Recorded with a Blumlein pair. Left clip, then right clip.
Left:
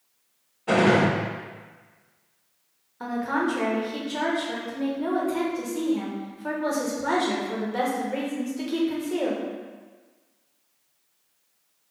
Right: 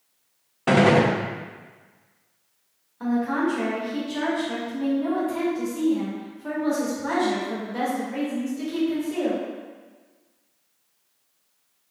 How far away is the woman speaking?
About 1.2 m.